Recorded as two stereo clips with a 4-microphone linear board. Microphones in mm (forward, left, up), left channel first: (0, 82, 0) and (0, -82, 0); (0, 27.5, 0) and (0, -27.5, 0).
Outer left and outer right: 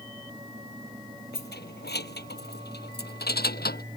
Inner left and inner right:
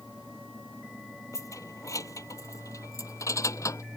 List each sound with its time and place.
1.3 s keys jangling: 80° left; by 3.8 s 70° left (ahead or behind)